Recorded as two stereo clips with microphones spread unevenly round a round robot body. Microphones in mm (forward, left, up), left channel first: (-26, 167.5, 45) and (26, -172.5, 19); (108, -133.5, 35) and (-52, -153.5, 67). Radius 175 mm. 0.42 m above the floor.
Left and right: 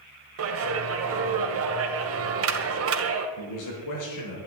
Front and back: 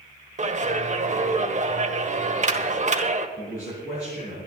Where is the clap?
125° right, 1.8 m.